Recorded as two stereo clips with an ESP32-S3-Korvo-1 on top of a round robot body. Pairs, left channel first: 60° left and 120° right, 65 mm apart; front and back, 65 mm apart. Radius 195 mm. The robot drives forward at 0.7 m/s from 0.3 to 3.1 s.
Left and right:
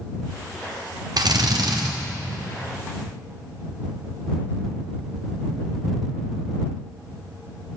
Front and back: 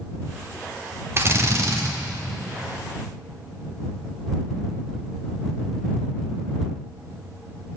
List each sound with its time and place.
1.2 s a drill: 125° right, 1.5 m; by 1.9 s 140° right, 1.9 m